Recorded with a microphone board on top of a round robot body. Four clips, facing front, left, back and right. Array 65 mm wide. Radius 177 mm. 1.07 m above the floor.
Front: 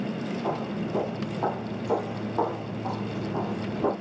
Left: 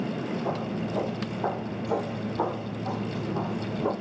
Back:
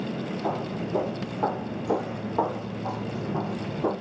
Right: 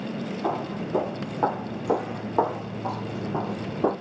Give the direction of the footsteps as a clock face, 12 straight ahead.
3 o'clock.